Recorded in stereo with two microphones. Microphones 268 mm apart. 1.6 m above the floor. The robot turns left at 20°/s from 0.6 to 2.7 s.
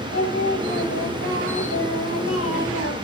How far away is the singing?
About 9.5 m.